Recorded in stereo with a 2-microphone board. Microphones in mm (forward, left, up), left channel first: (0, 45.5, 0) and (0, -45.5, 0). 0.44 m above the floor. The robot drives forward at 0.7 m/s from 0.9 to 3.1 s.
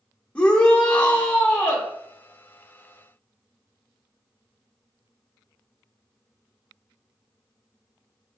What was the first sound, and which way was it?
A shout, 15° left (ahead or behind).